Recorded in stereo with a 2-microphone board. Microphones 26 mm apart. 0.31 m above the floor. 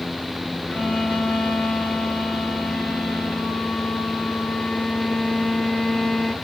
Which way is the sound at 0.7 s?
75° left (ahead or behind).